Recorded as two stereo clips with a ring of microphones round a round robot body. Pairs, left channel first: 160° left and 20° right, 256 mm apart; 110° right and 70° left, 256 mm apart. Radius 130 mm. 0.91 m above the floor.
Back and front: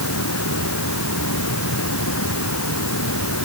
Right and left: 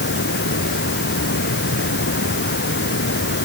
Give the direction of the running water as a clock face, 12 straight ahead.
5 o'clock.